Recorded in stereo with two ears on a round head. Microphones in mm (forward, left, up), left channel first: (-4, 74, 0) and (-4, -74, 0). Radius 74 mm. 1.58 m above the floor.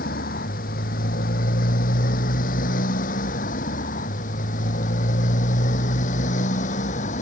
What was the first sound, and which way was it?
A motorcycle, 55° left (ahead or behind).